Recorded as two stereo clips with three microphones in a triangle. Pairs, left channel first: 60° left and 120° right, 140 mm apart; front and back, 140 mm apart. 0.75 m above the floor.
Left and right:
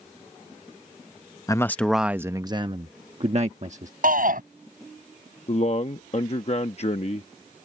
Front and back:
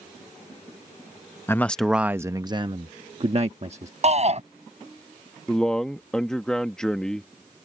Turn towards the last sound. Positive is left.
turn(degrees=85)